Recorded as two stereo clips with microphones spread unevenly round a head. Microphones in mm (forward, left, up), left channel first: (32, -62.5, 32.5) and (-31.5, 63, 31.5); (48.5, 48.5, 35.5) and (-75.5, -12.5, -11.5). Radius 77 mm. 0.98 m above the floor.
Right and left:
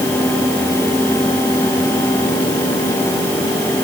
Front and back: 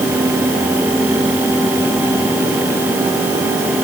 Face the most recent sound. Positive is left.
No sound to turn to.